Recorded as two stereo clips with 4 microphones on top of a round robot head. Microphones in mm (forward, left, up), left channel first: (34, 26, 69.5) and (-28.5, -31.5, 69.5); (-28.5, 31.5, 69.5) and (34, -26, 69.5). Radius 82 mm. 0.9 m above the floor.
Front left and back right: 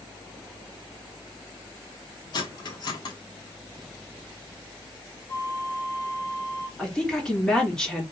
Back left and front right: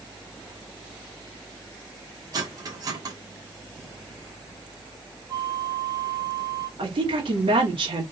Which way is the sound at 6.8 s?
40° right.